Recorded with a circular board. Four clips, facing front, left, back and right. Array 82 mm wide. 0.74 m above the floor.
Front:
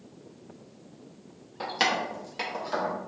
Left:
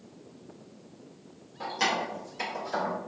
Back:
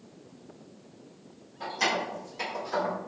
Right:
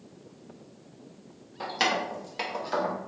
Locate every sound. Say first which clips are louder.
1.6 s keys jangling: right 1 dB, front 2 dB; 25° right, 0.7 m; by 3.0 s 70° right, 1.0 m